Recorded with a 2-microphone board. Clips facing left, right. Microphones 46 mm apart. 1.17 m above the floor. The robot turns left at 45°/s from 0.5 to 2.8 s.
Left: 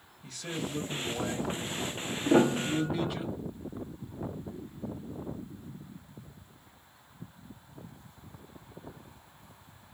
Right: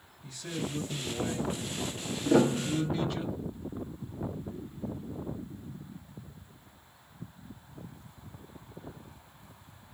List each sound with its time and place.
0.2 s a man speaking: 115° left, 1.5 m; by 3.2 s 15° left, 1.5 m
2.2 s a piano: 10° left (ahead or behind), 0.5 m; by 3.1 s 20° left (ahead or behind), 0.5 m